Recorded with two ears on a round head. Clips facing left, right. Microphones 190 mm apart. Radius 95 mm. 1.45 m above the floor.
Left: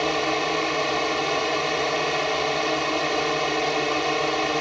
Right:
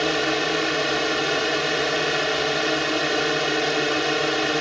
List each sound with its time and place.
0.0 s a drone: 15° right (ahead or behind)